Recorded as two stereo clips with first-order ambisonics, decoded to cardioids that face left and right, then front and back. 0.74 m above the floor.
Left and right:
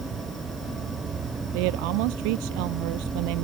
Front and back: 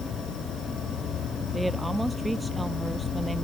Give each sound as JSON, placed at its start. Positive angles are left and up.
{"t": 0.0, "sound": "an insect", "azimuth_deg": -35}
{"t": 1.5, "sound": "a woman speaking", "azimuth_deg": -95}